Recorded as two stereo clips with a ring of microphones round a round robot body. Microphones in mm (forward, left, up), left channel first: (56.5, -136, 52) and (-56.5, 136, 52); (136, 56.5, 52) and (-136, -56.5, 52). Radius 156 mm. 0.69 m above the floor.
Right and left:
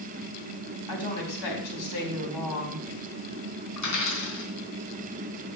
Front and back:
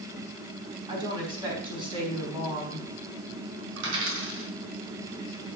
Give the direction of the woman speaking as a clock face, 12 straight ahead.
3 o'clock.